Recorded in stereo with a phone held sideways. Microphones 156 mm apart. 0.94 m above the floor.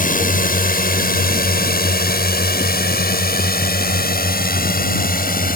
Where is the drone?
60° left (ahead or behind); by 5.6 s 65° left (ahead or behind).